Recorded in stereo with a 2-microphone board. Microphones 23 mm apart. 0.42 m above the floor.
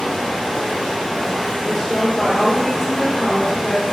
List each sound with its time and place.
0.0 s running water: 20° left (ahead or behind), 1.5 m
1.6 s a woman speaking: centre (ahead or behind), 0.8 m